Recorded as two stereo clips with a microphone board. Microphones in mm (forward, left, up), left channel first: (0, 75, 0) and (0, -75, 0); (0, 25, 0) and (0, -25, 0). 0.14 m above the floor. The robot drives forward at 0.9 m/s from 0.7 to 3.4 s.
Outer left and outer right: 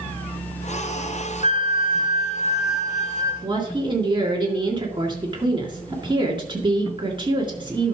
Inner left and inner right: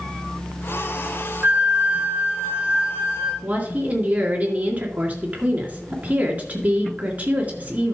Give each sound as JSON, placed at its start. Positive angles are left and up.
{"t": 1.4, "sound": "a flute", "side_deg": -40, "distance_m": 1.1}
{"t": 3.4, "sound": "a woman speaking", "side_deg": -35, "distance_m": 2.0}